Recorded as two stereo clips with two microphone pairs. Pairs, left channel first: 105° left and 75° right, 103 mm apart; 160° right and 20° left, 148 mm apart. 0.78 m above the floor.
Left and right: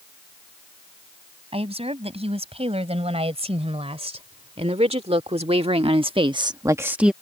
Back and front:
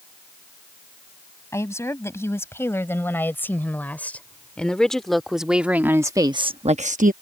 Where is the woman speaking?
90° right; by 7.1 s 10° left.